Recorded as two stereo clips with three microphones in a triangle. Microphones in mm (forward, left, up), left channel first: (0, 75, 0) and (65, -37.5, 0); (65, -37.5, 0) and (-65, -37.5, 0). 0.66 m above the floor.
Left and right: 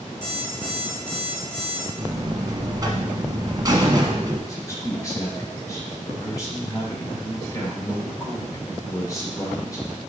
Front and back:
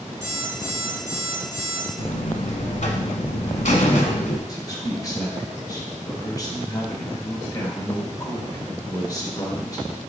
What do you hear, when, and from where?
0.2 s an alarm clock: 110° left, 2.5 m
2.0 s a buzzer: straight ahead, 1.2 m
4.5 s a man speaking: 60° left, 2.0 m